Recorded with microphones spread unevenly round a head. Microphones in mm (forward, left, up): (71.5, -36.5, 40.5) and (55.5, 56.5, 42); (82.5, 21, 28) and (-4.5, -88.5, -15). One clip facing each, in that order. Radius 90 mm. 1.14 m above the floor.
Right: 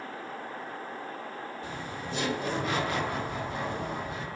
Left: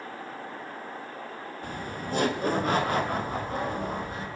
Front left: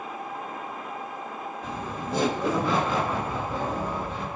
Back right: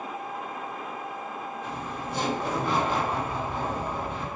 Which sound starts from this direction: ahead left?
Laughter, at 1.6 s.